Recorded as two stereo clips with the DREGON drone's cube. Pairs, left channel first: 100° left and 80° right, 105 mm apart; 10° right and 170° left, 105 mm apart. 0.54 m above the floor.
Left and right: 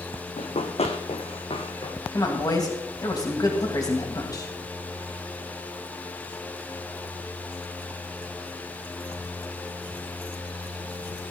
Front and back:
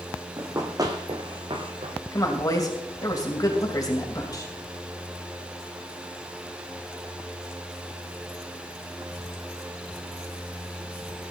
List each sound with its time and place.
0.4 s running footsteps: 105° left, 1.4 m; by 1.9 s 135° left, 2 m
2.1 s a woman speaking: 45° left, 2.5 m